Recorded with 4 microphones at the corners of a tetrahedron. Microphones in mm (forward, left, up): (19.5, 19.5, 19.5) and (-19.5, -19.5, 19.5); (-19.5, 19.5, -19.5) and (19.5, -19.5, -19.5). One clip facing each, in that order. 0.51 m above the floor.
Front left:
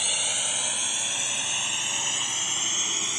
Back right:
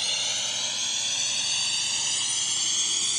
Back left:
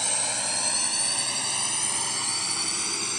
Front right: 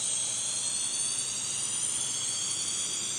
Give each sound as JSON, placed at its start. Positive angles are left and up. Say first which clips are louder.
{"t": 0.0, "sound": "a drone", "louder": "front left 1 dB, back left 10 dB", "azimuth_deg": 120}